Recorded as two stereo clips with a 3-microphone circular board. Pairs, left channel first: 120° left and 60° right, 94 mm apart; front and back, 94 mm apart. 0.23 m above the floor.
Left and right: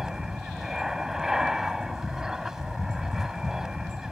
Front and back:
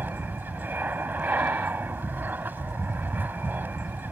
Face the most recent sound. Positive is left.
turn(degrees=-140)